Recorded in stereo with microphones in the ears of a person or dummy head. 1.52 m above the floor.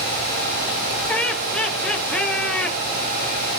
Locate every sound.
1.1 s laughter: 5° left (ahead or behind), 2.5 m